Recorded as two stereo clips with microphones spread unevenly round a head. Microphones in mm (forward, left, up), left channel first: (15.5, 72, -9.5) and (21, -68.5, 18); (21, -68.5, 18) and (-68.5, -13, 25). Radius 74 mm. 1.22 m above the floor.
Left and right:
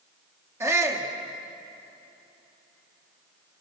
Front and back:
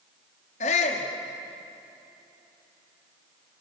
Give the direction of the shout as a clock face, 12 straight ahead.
12 o'clock.